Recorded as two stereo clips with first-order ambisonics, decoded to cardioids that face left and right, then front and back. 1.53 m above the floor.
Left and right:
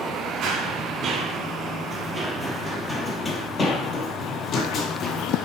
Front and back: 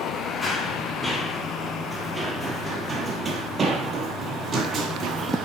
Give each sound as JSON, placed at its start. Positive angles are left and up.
{"t": 0.4, "sound": "running footsteps", "azimuth_deg": -70, "distance_m": 1.9}